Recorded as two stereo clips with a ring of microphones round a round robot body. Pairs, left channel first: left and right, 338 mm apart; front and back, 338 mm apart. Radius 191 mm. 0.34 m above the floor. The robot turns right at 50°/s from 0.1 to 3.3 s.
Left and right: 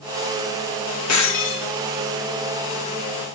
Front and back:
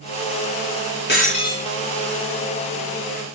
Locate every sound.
1.1 s breaking glass: 55° left, 2.5 m; by 1.7 s 85° left, 2.5 m